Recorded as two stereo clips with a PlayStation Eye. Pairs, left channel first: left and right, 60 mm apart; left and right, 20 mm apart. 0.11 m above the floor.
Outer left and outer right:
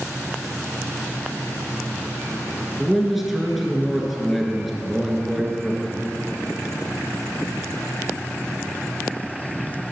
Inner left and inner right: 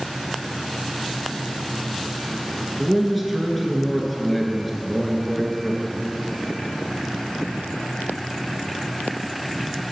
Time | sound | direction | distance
2.8 | a man speaking | centre (ahead or behind) | 1.3 m